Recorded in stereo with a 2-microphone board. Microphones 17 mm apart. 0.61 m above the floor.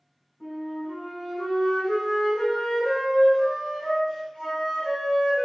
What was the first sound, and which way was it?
A flute, 65° left (ahead or behind).